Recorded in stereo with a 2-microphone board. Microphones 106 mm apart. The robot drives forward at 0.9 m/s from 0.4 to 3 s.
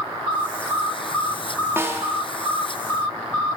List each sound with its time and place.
1.8 s a snare drum: 25° right (ahead or behind), 2 m